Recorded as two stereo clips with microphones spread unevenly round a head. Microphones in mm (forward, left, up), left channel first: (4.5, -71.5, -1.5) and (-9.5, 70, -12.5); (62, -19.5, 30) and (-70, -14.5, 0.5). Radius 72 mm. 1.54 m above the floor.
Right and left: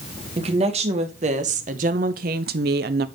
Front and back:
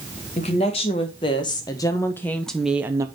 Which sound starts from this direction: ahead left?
A woman speaking, at 0.4 s.